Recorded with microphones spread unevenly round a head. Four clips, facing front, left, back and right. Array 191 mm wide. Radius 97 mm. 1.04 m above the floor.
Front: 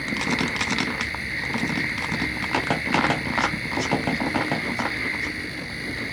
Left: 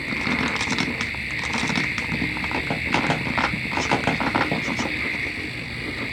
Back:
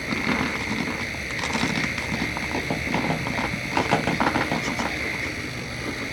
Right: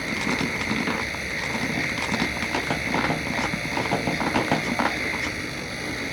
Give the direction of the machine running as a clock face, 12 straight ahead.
4 o'clock.